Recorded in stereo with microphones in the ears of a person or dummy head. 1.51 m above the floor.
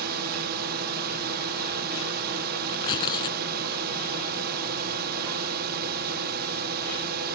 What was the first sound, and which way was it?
A drone, 50° right (ahead or behind).